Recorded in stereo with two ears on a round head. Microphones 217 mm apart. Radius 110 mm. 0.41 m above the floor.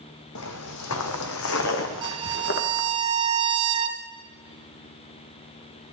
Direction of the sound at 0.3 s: 65° left (ahead or behind).